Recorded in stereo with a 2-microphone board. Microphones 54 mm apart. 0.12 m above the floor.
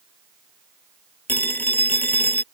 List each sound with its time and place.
1.3 s a phone ringing: 35° left (ahead or behind)